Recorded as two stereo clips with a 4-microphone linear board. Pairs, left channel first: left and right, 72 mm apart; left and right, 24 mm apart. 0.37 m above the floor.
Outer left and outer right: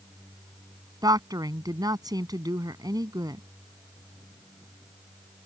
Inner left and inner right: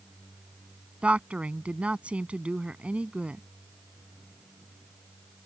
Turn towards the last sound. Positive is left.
turn(degrees=-65)  # may be behind; listen again after turning